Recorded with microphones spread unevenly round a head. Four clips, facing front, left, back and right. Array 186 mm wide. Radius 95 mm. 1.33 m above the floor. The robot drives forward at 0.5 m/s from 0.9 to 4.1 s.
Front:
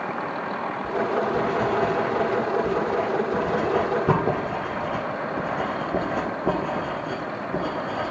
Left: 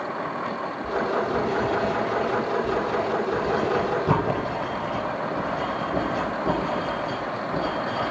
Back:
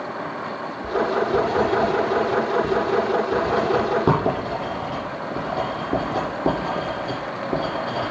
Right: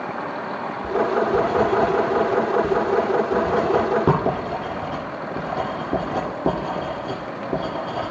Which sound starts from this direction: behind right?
Writing, at 0.8 s.